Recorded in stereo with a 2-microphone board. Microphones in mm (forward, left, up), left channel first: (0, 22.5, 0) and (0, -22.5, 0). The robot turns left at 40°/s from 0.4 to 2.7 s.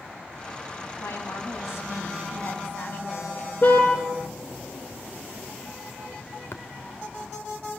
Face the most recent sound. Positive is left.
turn(degrees=55)  # may be behind; listen again after turning